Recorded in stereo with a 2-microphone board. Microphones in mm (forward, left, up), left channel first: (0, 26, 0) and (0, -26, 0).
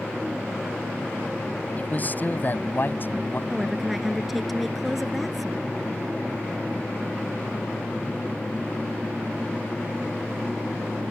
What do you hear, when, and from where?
1.8 s a man speaking: 35° left (ahead or behind); by 3.4 s 45° left (ahead or behind)
3.5 s a woman speaking: 5° right (ahead or behind)